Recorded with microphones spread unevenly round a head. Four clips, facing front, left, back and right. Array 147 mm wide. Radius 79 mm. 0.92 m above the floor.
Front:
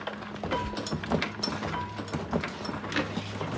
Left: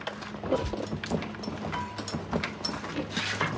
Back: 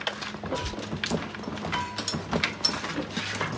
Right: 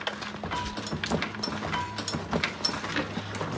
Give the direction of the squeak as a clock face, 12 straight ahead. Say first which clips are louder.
Left 9 dB, front 4 dB; 9 o'clock.